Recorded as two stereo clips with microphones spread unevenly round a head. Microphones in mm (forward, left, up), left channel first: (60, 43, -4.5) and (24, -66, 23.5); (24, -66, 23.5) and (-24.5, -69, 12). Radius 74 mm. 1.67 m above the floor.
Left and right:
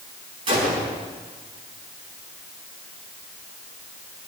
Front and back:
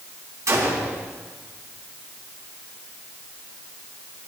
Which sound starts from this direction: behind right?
A gunshot, at 0.5 s.